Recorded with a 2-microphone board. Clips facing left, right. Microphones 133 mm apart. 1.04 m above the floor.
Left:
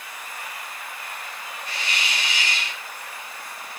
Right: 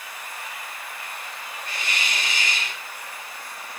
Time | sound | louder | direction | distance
1.7 | a hiss | even | 45° right (ahead or behind) | 4.5 m